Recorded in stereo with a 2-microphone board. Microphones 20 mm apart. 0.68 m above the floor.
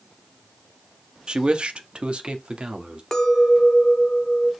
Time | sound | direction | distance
1.3 | a man speaking | 40° right (ahead or behind) | 0.7 m
3.1 | a clink | 25° left (ahead or behind) | 0.8 m